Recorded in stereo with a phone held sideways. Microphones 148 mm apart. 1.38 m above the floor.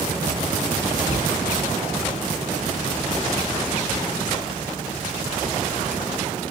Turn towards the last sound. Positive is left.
turn(degrees=75)  # may be behind; listen again after turning